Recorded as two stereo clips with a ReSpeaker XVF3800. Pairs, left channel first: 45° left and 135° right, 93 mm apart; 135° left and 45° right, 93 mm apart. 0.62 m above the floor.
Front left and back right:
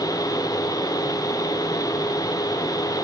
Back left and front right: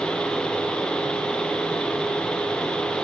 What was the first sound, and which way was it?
Only background noise.